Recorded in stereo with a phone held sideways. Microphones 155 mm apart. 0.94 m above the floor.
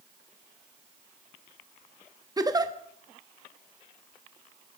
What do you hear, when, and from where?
2.4 s a giggle: 25° right (ahead or behind), 0.9 m